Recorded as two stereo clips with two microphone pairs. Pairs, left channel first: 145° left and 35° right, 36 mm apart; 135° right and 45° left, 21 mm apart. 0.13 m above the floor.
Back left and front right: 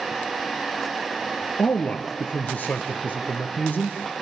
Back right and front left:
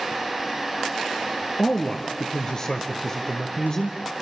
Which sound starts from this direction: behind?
A man speaking, at 1.6 s.